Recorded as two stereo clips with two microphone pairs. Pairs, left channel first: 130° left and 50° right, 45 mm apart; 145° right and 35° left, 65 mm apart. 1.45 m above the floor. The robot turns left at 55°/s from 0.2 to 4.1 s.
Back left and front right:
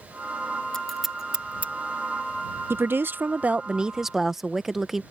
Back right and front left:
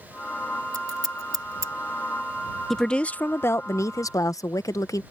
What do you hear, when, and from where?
0.7 s scissors: 55° left; by 1.7 s straight ahead
2.7 s a woman speaking: 55° right; by 5.0 s 135° right